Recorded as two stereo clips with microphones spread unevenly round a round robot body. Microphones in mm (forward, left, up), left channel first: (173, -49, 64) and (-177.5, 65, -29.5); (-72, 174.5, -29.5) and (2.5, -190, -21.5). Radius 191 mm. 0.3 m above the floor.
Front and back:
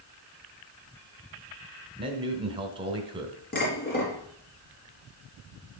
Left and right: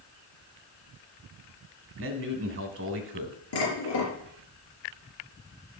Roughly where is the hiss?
No hiss in this recording.